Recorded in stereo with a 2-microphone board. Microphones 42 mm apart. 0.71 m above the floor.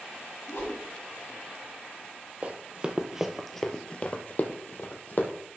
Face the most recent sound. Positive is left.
turn(degrees=50)  # may be behind; listen again after turning